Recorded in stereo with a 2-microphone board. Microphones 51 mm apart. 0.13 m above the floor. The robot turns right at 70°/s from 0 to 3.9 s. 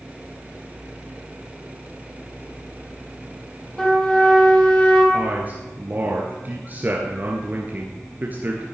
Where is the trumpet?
25° left (ahead or behind), 4.5 m; by 5.0 s 30° left (ahead or behind), 4.5 m.